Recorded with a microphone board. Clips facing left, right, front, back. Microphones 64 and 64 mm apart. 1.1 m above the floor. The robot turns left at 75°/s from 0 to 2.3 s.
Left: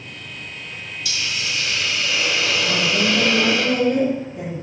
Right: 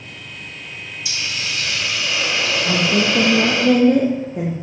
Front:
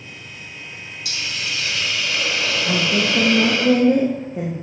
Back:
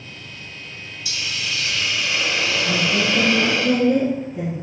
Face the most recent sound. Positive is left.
turn(degrees=-55)